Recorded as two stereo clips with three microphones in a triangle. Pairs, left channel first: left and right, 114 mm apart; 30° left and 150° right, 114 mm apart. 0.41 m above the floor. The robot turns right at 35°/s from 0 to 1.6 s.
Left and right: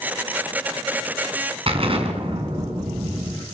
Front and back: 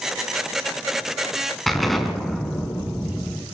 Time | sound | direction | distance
1.7 | an explosion | 60° right | 3.5 m